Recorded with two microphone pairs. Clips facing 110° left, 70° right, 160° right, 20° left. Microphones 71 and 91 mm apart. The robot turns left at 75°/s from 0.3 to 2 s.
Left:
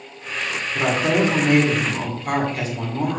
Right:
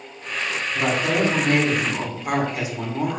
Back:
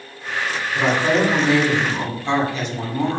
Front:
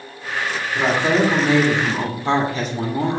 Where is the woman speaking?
95° left, 1.3 m; by 3.2 s straight ahead, 1.3 m.